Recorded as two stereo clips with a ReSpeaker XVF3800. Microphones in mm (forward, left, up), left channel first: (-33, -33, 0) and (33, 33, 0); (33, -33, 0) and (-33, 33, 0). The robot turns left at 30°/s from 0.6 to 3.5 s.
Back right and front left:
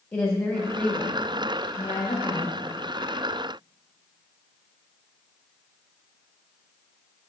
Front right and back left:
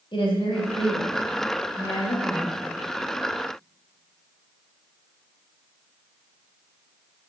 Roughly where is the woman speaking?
Right.